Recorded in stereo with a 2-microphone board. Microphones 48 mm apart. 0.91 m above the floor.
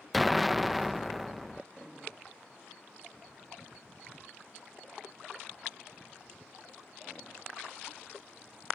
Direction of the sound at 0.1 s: Centre (ahead or behind).